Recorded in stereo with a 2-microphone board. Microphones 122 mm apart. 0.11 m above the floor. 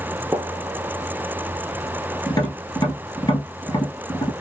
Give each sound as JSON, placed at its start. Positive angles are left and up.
{"t": 0.3, "sound": "a gunshot", "side_deg": -20, "distance_m": 0.7}
{"t": 2.3, "sound": "tapping", "side_deg": 35, "distance_m": 1.9}